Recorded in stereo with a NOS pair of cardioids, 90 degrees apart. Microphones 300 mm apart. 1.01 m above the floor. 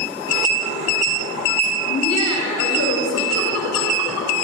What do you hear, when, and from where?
1.9 s laughter: 60° left, 6 m; by 4.3 s 70° left, 4.5 m